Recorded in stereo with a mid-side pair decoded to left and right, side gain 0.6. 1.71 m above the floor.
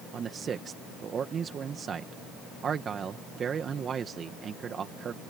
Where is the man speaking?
40° right.